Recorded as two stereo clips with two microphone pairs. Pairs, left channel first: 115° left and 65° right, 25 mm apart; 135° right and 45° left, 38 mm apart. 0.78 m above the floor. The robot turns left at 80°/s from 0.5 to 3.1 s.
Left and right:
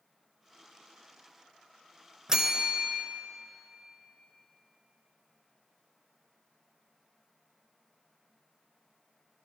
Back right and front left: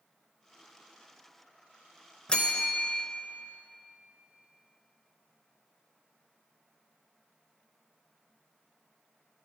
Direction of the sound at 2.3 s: 95° right.